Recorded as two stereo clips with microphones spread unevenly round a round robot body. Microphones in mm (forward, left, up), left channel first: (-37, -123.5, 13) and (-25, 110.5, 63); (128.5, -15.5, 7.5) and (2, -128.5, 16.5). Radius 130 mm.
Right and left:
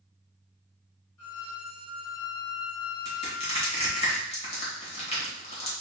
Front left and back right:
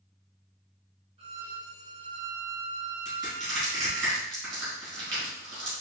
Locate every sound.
1.2 s a violin: 80° right, 1.3 m
3.0 s crushing: 160° right, 1.9 m